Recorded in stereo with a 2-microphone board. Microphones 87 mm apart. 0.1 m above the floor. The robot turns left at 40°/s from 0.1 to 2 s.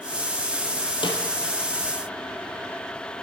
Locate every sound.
1.0 s a snare drum: 70° left (ahead or behind), 0.9 m; by 1.2 s 65° left (ahead or behind), 0.9 m